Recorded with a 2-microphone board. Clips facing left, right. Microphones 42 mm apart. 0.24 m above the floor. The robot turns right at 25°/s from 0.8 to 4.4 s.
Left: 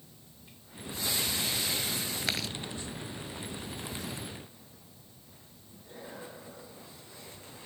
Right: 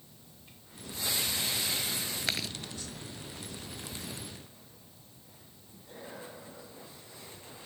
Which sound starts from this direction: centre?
Chewing, at 2.3 s.